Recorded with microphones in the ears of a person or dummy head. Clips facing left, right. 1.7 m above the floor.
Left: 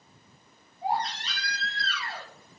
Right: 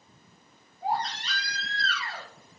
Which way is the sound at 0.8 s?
30° right (ahead or behind).